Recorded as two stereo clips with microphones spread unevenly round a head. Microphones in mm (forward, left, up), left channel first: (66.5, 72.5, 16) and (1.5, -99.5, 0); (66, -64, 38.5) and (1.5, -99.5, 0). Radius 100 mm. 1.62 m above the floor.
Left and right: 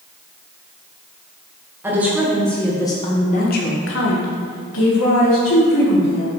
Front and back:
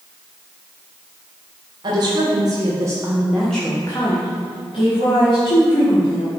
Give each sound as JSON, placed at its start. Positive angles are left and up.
{"t": 1.8, "sound": "a woman speaking", "azimuth_deg": 170, "distance_m": 2.0}